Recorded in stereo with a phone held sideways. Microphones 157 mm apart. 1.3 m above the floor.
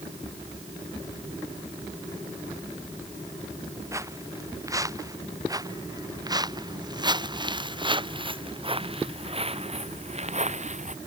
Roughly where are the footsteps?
Centre.